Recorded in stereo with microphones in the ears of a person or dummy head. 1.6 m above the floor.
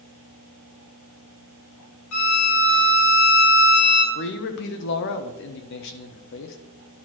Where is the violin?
85° left, 2 m.